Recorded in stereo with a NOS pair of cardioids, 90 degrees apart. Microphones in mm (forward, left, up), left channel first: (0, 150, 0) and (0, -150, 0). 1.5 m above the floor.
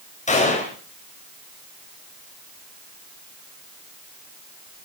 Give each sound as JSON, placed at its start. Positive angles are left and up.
{"t": 0.3, "sound": "a gunshot", "azimuth_deg": 20, "distance_m": 7.5}